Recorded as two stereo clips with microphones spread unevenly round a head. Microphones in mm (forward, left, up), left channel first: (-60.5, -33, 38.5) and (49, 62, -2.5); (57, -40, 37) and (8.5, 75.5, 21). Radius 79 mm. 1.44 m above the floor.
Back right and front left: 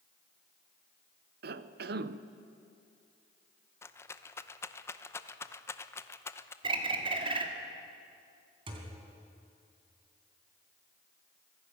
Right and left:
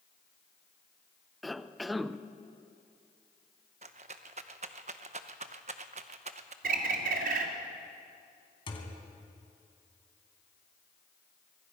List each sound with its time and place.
1.4 s a cough: 20° left, 0.8 m
3.8 s a rattle: 160° left, 0.7 m
6.6 s a bird: 100° left, 2 m
8.7 s a thud: 25° right, 3 m